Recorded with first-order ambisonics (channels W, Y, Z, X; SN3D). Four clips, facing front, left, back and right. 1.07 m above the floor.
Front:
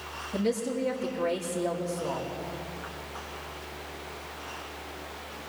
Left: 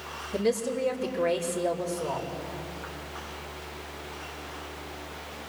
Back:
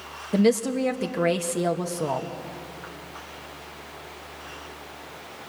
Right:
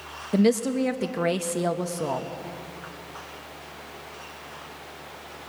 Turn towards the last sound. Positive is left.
turn(degrees=-135)